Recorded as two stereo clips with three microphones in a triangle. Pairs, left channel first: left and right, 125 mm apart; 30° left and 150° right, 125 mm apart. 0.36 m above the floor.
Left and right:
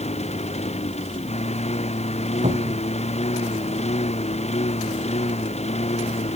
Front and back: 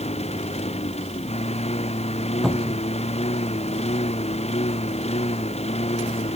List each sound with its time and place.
0.0 s a lawn mower: 60° left
2.4 s a cupboard door: 60° right